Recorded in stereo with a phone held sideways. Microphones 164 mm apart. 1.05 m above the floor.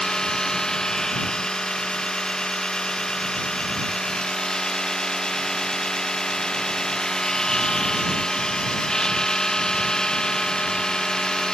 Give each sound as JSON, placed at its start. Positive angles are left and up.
{"t": 0.0, "sound": "a machine running", "side_deg": 5}